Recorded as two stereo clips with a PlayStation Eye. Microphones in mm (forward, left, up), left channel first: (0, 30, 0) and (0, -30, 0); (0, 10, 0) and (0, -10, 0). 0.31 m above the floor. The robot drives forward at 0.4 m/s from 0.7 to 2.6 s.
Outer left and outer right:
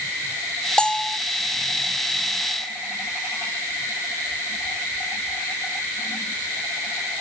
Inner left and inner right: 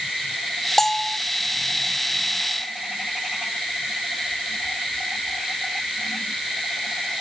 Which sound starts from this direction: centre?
A bell, at 0.8 s.